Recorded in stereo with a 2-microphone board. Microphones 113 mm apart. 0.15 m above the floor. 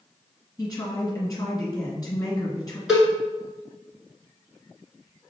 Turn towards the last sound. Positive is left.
turn(degrees=-5)  # may be behind; listen again after turning